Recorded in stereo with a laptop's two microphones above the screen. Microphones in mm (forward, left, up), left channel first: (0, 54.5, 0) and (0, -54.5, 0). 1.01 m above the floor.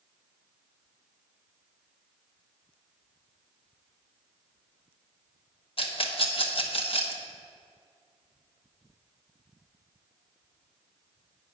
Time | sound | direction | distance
5.8 | a rattle | 60° left (ahead or behind) | 0.8 m